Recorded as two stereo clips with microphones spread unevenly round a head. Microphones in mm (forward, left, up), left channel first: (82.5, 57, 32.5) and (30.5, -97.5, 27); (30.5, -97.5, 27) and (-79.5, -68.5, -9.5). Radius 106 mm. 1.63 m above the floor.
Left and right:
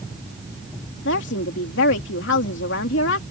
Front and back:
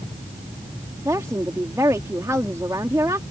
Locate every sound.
1.1 s a woman speaking: 80° left